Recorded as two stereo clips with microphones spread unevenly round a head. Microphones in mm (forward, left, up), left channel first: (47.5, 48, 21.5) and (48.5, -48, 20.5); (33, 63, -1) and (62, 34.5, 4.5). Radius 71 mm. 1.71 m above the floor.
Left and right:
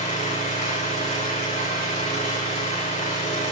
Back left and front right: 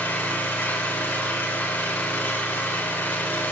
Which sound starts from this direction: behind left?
An engine running, at 0.0 s.